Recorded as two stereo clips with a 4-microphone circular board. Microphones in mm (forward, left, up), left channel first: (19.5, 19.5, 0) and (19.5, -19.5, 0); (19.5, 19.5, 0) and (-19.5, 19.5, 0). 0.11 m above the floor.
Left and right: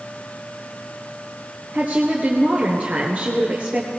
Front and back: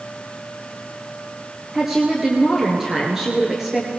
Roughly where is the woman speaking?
Right.